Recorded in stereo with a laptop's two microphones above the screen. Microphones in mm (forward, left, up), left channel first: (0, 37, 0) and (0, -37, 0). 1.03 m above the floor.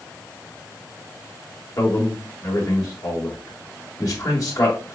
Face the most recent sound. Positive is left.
turn(degrees=50)  # may be behind; listen again after turning